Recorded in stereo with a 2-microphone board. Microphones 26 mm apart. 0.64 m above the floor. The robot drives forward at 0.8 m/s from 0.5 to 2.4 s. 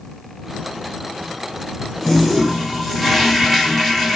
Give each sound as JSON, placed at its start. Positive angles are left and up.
{"t": 2.0, "sound": "a toilet flushing", "side_deg": 10, "distance_m": 1.6}